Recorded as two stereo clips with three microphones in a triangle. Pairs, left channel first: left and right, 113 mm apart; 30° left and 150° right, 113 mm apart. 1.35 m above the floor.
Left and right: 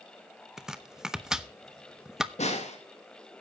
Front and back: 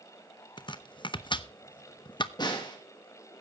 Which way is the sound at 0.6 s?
5° right.